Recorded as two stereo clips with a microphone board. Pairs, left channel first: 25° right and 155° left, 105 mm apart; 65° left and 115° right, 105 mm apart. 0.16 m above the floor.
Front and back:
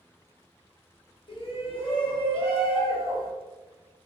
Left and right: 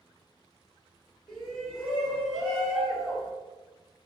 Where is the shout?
15° right, 1.5 m.